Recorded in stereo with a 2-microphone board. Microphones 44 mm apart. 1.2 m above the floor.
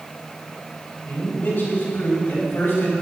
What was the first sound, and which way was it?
A man speaking, 45° left (ahead or behind).